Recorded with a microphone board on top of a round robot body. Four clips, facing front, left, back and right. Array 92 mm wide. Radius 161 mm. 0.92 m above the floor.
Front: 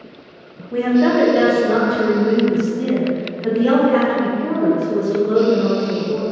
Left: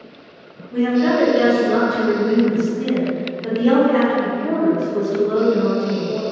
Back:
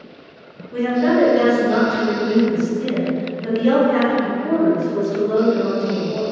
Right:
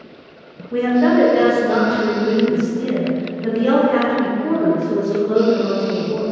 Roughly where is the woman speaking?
Ahead right.